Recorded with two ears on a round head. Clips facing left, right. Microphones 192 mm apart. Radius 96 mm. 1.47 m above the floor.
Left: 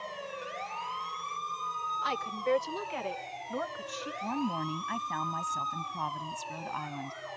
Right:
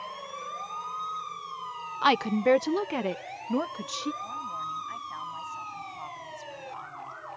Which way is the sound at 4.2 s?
65° left (ahead or behind).